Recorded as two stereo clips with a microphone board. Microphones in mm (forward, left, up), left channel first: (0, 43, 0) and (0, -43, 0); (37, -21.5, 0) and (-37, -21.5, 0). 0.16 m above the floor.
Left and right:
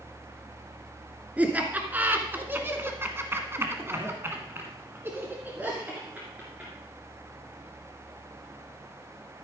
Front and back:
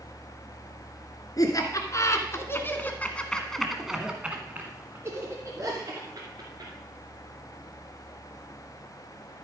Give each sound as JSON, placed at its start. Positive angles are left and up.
{"t": 1.4, "sound": "laughter", "azimuth_deg": -20, "distance_m": 2.0}